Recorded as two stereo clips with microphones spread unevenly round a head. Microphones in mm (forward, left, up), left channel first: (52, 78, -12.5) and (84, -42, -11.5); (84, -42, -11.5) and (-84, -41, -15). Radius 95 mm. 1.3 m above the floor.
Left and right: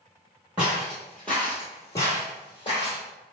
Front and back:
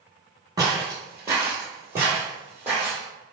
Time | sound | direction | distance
0.6 | footsteps | 145° right | 1.3 m